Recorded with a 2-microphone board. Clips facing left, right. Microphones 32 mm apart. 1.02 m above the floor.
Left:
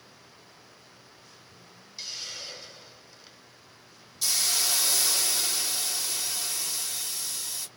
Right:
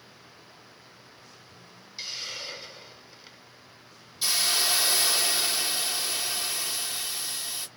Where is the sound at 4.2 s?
25° right (ahead or behind), 0.8 m.